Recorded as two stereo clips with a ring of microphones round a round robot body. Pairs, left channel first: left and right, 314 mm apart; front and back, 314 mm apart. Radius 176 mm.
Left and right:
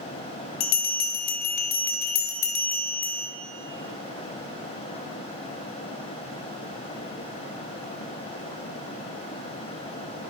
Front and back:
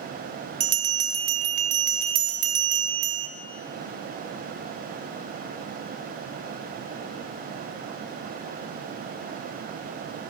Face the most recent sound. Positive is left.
turn(degrees=135)